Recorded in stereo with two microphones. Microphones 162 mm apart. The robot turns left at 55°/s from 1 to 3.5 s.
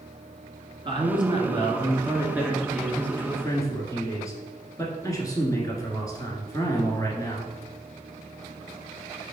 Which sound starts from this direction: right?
A man speaking, at 0.8 s.